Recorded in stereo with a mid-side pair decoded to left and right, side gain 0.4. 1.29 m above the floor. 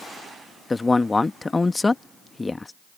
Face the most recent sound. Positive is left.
turn(degrees=25)